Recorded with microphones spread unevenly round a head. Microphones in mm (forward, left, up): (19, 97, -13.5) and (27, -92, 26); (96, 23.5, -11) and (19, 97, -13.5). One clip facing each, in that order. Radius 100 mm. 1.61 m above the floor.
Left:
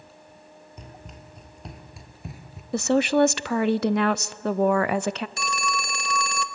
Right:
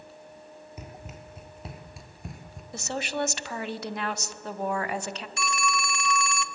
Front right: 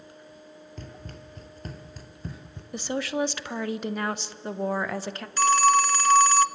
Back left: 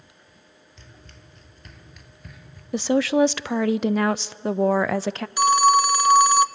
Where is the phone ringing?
90° left, 0.6 m.